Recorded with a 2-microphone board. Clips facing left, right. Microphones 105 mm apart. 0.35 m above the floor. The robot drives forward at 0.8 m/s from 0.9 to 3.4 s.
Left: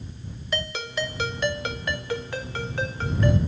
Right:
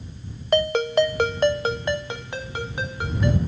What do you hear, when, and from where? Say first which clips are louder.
0.5 s a ringtone: right 12 dB; 55° right (ahead or behind), 0.5 m; by 3.4 s 10° right (ahead or behind), 2.0 m